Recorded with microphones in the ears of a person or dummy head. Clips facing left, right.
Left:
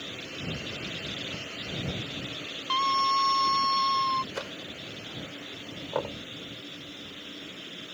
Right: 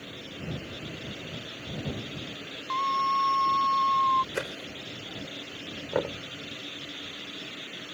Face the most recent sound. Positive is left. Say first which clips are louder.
# right 3 dB
turn(degrees=-25)  # may be behind; listen again after turning